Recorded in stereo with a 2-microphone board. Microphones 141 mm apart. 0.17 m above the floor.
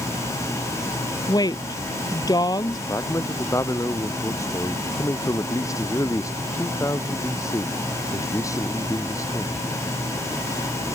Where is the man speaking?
20° left (ahead or behind).